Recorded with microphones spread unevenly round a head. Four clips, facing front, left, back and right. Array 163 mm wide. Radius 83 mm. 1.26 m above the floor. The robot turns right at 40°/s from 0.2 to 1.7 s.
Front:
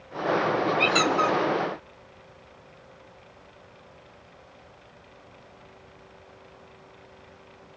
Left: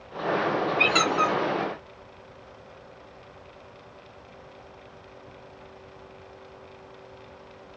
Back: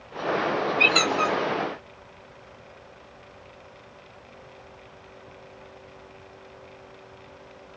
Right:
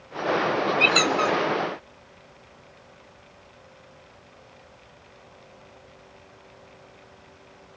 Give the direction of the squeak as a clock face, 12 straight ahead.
9 o'clock.